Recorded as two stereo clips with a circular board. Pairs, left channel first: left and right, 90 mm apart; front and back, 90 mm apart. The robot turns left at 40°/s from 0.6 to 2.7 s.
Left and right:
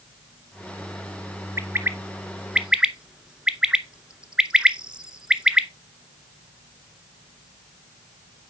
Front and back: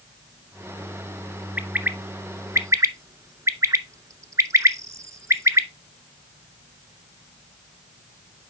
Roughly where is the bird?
Behind right.